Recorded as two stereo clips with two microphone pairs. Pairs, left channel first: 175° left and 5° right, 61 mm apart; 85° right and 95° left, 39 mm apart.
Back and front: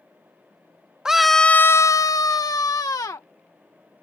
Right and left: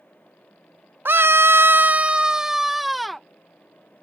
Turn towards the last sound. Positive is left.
turn(degrees=-170)